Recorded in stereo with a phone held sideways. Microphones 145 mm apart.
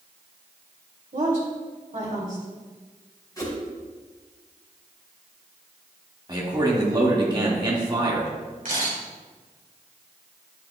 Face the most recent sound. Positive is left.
turn(degrees=-65)  # may be behind; listen again after turning